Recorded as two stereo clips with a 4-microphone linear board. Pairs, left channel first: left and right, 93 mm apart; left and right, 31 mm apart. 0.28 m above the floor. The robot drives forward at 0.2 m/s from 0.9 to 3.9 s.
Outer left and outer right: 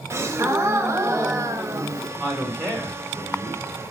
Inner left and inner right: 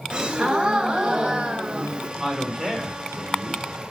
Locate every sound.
0.1 s a gasp: 30° right (ahead or behind), 0.7 m; by 2.1 s 35° right (ahead or behind), 0.6 m
2.2 s a man speaking: 25° right (ahead or behind), 1.7 m